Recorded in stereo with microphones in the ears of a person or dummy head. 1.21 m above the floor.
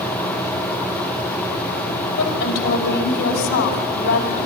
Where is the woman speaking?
65° left (ahead or behind), 5 m.